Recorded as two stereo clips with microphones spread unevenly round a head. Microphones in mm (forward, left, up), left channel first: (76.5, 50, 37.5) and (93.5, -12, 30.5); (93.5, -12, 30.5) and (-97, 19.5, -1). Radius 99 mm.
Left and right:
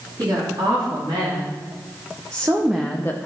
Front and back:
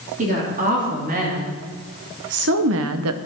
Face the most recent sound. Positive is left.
turn(degrees=165)